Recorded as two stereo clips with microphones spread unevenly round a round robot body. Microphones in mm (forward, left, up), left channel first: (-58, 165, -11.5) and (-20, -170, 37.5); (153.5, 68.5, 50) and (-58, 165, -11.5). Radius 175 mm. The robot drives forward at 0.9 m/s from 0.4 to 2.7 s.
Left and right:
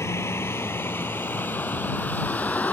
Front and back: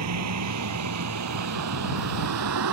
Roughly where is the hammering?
I don't hear hammering.